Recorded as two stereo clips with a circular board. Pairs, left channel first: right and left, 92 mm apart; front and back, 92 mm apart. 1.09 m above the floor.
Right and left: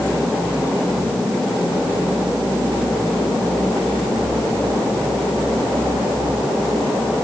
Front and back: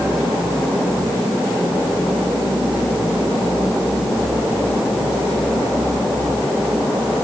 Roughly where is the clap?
No clap in this recording.